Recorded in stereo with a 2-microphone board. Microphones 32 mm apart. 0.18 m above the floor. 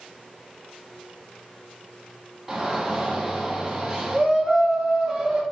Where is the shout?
10° right (ahead or behind), 1.0 m.